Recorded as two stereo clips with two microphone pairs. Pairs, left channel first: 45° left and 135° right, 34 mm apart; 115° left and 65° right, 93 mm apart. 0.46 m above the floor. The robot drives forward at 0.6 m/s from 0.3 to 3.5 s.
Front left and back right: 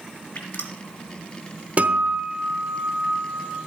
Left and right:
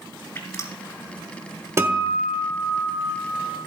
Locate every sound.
0.3 s dripping: 55° left, 1.5 m; by 0.8 s 60° left, 1.4 m
1.8 s a guitar: 115° right, 1.1 m; by 3.6 s 150° right, 1.7 m